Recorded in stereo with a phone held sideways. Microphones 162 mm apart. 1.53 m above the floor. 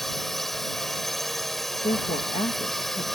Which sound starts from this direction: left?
A woman speaking, at 1.8 s.